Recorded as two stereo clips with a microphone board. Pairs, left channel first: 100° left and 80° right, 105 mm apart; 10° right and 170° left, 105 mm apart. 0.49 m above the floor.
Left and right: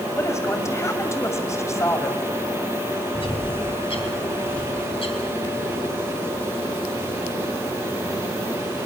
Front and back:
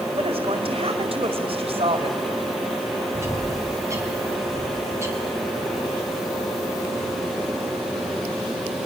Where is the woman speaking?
160° left, 2.5 m.